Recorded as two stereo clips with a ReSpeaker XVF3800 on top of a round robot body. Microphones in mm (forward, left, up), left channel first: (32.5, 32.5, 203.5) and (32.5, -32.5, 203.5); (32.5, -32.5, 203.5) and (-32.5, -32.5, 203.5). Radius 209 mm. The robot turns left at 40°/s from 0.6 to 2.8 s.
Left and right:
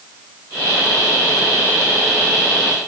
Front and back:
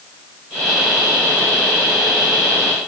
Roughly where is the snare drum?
No snare drum in this recording.